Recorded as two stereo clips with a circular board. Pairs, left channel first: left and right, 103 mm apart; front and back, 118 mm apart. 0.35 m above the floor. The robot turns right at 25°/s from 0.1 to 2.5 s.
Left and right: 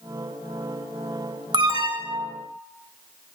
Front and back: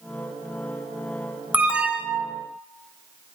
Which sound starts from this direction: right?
An alarm, at 1.5 s.